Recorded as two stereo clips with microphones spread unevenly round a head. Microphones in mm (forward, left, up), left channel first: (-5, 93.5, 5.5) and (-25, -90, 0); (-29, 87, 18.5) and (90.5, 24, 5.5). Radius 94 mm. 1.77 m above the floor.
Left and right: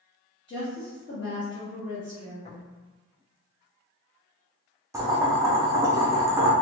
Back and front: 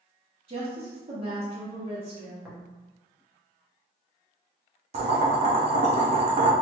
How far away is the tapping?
About 1.0 m.